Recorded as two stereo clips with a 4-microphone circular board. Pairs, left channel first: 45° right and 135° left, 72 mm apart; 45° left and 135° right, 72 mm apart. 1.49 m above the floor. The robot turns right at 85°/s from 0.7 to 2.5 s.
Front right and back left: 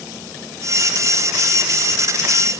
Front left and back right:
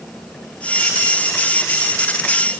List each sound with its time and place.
Only background noise.